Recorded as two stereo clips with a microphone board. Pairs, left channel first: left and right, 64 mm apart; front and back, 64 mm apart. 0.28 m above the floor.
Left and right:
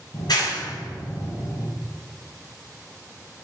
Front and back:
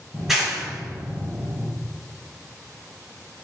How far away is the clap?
About 3 m.